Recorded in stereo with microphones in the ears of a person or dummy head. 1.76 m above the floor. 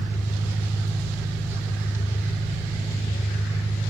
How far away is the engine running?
About 5.5 m.